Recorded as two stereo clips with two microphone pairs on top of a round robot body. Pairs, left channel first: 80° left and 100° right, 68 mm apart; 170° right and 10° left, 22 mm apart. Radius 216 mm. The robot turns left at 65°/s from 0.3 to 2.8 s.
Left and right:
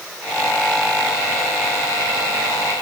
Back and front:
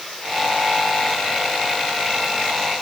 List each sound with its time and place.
Only background noise.